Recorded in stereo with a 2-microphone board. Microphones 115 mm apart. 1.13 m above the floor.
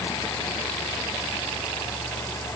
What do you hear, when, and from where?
Only background noise.